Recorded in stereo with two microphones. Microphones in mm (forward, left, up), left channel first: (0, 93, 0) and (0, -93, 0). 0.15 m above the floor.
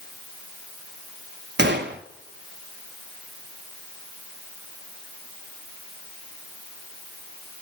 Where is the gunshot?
75° right (ahead or behind), 0.5 m.